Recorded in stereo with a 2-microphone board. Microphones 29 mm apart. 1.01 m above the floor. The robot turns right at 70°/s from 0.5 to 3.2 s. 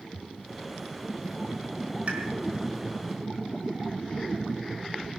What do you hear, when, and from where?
2.1 s a pop: 45° right (ahead or behind), 4 m; by 2.2 s 55° right (ahead or behind), 4 m